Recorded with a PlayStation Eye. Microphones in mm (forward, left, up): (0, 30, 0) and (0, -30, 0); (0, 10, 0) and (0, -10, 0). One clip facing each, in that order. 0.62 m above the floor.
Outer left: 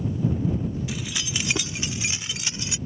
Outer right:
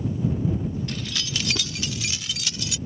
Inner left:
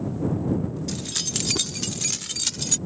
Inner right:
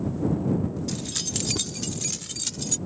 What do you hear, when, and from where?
0.9 s keys jangling: 10° left (ahead or behind); by 2.8 s 30° left (ahead or behind)